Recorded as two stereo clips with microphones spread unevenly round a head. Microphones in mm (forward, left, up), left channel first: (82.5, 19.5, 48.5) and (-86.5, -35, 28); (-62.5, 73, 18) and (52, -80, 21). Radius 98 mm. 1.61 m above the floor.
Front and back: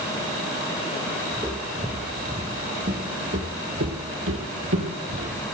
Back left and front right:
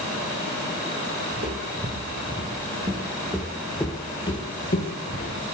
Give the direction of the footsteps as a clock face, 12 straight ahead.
3 o'clock.